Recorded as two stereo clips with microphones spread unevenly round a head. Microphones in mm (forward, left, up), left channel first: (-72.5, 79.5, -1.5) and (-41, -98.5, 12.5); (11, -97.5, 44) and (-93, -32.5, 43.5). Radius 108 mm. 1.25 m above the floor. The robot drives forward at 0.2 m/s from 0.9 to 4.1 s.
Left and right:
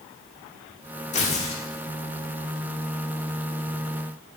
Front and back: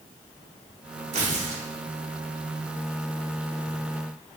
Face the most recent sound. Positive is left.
turn(degrees=160)